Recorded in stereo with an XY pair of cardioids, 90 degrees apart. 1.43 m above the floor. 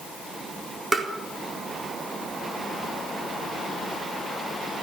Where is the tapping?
35° right, 4 m.